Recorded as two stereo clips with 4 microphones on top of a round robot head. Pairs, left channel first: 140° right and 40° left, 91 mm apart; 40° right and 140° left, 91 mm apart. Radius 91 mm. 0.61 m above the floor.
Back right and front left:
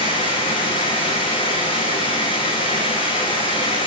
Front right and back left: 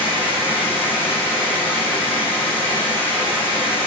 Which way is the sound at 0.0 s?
110° right.